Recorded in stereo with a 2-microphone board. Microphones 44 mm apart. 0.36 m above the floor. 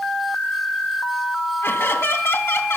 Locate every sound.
1.6 s laughter: 65° left (ahead or behind), 3 m